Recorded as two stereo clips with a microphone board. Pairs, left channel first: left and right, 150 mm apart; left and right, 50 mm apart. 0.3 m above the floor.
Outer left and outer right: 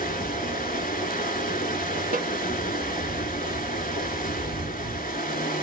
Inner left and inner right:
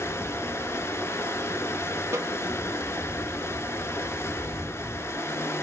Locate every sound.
0.0 s running water: 70° left (ahead or behind), 0.8 m
2.1 s a snare drum: 65° right (ahead or behind), 0.5 m